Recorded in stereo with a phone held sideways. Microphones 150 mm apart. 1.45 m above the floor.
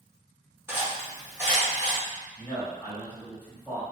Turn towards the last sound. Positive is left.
turn(degrees=15)  # may be behind; listen again after turning